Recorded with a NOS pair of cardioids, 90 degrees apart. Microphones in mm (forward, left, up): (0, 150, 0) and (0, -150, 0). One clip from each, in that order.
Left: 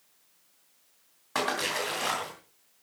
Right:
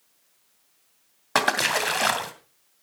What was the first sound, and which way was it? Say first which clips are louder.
A splash: right 7 dB; 65° right.